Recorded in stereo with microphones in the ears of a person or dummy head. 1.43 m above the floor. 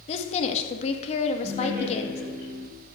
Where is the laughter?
40° right (ahead or behind), 5 m.